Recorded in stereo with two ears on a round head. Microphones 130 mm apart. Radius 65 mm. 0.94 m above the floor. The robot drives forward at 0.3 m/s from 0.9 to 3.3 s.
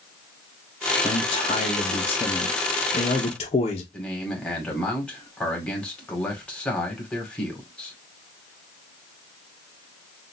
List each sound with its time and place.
1.0 s a man speaking: 35° left (ahead or behind), 1.2 m; by 3.8 s 45° left (ahead or behind), 1.0 m
3.9 s a man speaking: 10° left (ahead or behind), 2 m